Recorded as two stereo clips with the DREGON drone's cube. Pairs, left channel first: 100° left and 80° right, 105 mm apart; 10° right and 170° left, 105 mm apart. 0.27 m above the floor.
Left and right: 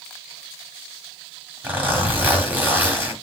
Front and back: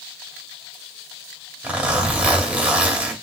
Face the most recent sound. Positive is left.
turn(degrees=-130)